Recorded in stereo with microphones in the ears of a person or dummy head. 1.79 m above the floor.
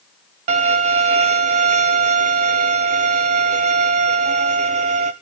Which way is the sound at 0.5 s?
35° right (ahead or behind).